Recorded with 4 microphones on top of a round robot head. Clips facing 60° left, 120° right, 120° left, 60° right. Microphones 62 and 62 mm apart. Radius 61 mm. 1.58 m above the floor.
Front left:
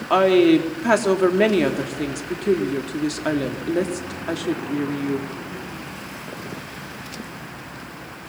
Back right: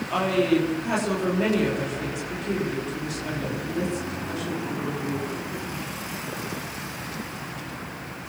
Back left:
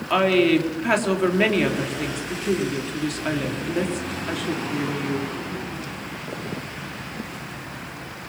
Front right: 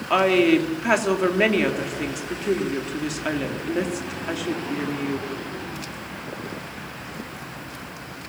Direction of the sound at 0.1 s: 25° left.